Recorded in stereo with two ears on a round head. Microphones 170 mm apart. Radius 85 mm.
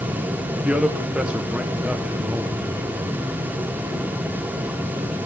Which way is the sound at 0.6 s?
5° right (ahead or behind).